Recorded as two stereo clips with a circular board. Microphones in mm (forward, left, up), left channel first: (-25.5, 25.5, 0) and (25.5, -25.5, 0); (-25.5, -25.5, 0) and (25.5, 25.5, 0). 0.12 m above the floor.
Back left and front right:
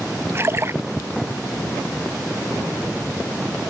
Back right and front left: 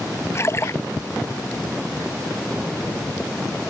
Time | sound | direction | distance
0.3 | a splash | 90° right | ?